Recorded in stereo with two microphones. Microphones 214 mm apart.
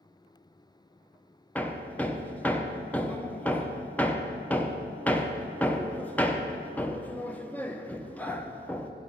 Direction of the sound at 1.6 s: 10° left (ahead or behind).